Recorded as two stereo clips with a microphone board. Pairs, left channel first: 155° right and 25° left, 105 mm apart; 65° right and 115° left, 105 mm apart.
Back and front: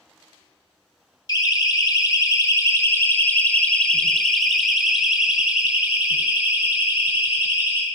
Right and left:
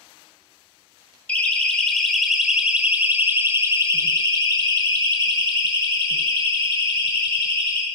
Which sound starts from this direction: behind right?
A siren, at 1.3 s.